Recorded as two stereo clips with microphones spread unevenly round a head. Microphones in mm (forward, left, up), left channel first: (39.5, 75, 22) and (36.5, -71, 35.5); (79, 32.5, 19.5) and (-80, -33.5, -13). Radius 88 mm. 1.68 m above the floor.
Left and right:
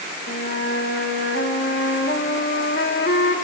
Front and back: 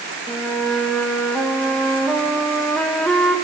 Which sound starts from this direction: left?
A flute, at 0.3 s.